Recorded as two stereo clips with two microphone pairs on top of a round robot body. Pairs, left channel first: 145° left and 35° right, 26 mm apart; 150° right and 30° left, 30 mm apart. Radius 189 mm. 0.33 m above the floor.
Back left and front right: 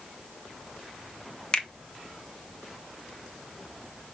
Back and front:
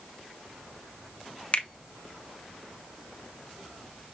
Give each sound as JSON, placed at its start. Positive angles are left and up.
{"t": 1.5, "sound": "a finger snap", "azimuth_deg": -170, "distance_m": 1.4}